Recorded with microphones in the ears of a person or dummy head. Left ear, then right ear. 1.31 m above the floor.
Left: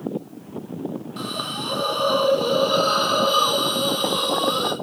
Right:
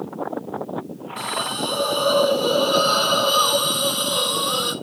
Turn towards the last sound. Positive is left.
turn(degrees=0)  # may be behind; listen again after turning